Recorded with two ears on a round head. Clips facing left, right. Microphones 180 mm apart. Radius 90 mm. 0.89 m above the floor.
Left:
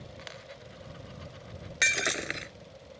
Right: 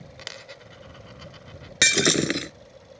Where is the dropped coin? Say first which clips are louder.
Right 2 dB; 55° right (ahead or behind).